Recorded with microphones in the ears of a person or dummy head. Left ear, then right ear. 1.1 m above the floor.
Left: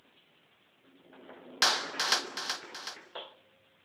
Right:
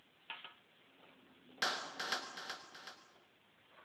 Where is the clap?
35° left (ahead or behind), 1.0 m.